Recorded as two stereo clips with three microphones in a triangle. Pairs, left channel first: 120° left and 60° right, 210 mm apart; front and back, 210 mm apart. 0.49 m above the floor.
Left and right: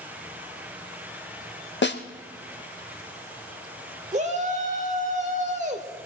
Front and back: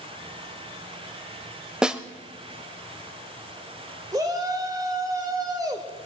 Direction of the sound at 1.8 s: 95° left.